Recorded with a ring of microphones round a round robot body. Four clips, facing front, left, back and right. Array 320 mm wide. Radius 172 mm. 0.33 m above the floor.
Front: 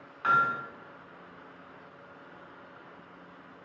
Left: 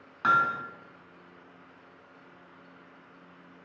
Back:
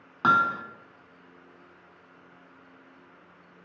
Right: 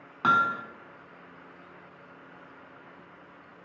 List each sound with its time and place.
0.2 s hammering: 155° right, 0.9 m